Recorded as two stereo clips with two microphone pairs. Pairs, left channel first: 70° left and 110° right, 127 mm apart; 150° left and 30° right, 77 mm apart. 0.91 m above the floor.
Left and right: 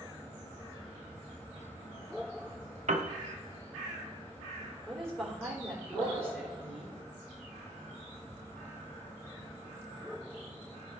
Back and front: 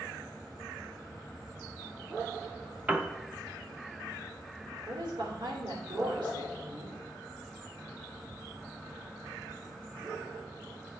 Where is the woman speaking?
15° right, 3 m.